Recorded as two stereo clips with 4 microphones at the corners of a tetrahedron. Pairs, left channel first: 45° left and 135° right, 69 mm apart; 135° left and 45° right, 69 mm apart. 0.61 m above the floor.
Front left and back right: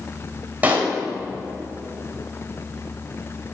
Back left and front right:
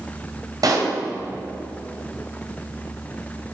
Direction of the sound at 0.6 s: 70° right.